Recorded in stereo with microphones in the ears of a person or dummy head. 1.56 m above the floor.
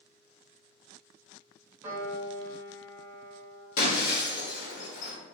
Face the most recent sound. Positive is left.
turn(degrees=50)  # may be behind; listen again after turning